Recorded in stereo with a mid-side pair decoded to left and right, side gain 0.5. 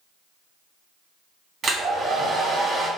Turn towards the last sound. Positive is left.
turn(degrees=-45)